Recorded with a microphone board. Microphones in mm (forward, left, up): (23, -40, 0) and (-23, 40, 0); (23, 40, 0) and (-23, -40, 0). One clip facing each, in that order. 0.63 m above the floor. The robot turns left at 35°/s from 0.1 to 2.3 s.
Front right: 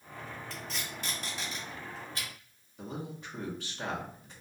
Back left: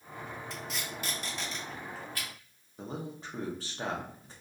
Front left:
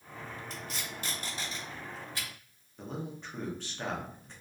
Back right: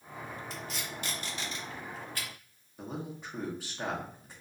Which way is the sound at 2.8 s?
160° left.